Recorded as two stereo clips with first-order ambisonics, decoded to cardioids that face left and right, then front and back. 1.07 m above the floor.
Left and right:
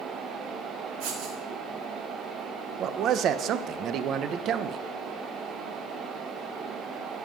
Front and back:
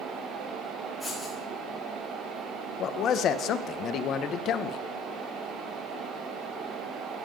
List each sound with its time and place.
1.0 s writing: 90° right, 3 m
2.8 s a man speaking: 45° right, 0.7 m